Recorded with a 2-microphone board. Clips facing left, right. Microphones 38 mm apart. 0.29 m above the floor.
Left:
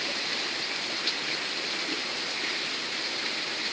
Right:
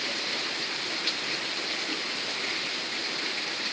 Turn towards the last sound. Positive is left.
No sound to turn to.